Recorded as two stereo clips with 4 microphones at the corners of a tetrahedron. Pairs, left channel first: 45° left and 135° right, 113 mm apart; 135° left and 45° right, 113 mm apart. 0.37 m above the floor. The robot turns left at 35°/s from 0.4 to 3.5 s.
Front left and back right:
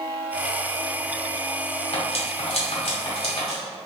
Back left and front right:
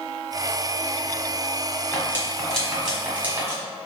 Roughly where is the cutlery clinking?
Left.